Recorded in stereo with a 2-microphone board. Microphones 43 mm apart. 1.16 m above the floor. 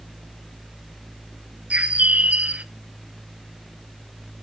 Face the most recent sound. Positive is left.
turn(degrees=-35)  # may be behind; listen again after turning